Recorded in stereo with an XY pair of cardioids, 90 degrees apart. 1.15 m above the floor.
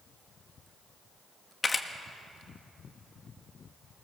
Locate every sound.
1.6 s a camera shutter: 35° left, 1.6 m